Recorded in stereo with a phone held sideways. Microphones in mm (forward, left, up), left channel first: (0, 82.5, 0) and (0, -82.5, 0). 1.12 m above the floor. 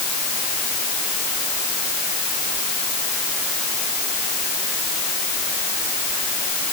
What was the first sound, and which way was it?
Only background noise.